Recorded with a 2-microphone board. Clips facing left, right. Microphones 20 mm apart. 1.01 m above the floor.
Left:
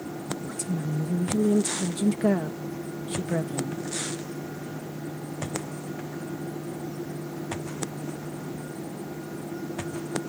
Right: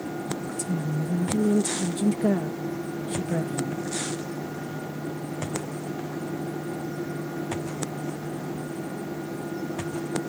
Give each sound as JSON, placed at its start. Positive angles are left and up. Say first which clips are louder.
{"t": 0.4, "sound": "a woman speaking", "louder": "right 2 dB", "side_deg": 15}